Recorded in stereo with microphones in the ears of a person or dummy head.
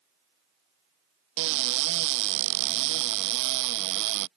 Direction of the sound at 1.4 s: 70° right (ahead or behind).